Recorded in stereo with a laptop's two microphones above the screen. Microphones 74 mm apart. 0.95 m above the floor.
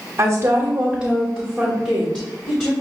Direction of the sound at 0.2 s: 40° right (ahead or behind).